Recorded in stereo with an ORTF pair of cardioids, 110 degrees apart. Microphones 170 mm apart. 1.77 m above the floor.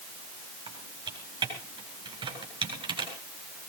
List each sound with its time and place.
0.7 s typing on a keyboard: 30° right, 8 m